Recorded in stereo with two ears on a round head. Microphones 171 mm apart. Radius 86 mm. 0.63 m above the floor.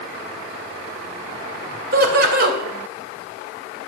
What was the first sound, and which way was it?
Laughter, 50° right (ahead or behind).